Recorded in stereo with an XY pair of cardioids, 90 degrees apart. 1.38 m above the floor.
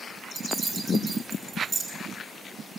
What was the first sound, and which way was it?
Keys jangling, 40° right.